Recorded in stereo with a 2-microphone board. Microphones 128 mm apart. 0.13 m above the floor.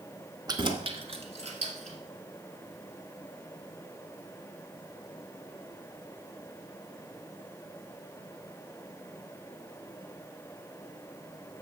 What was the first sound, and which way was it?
Keys jangling, 30° right (ahead or behind).